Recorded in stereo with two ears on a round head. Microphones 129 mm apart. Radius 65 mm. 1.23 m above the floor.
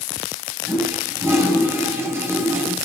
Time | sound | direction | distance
0.7 | a toilet flushing | 15° right (ahead or behind) | 7.5 m